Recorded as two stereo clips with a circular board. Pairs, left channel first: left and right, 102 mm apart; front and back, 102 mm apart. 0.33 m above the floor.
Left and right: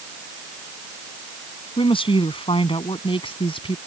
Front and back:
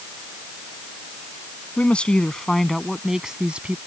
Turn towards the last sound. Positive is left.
turn(degrees=105)